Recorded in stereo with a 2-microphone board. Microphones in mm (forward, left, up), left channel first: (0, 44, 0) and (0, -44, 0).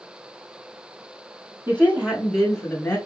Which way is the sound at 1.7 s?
20° right (ahead or behind).